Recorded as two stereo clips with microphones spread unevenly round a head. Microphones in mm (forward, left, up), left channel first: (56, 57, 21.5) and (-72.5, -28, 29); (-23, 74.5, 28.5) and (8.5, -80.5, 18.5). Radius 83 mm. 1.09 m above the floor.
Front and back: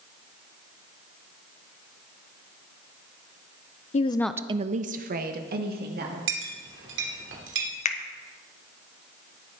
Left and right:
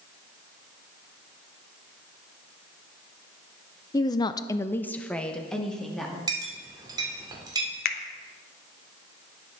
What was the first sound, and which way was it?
A woman speaking, 35° left.